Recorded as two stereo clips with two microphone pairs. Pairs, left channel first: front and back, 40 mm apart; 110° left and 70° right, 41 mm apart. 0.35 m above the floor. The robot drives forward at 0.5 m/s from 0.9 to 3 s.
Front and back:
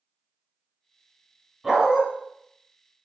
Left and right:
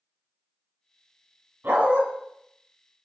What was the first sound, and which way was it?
A dog barking, 95° right.